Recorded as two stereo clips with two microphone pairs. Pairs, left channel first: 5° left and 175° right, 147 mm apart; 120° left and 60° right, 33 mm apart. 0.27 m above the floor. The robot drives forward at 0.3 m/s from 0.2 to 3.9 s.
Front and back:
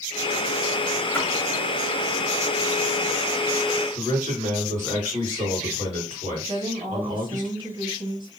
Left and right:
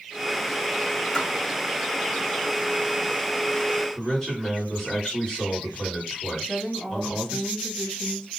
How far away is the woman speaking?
About 1.0 m.